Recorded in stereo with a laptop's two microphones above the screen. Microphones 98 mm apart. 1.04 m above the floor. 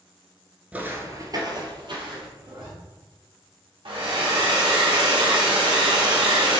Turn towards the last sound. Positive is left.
turn(degrees=-60)  # may be behind; listen again after turning